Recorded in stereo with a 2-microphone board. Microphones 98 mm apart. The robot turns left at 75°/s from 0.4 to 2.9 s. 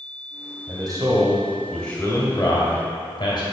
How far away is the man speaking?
About 2 m.